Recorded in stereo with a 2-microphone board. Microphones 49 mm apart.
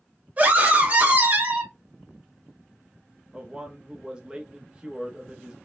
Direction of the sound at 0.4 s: 35° right (ahead or behind).